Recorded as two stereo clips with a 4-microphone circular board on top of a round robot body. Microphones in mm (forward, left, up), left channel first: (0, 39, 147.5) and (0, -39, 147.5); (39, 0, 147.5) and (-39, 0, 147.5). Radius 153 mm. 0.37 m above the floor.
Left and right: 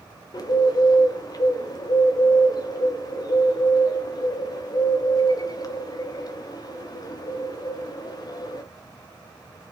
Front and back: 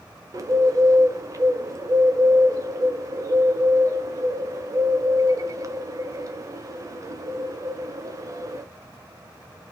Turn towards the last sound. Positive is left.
turn(degrees=130)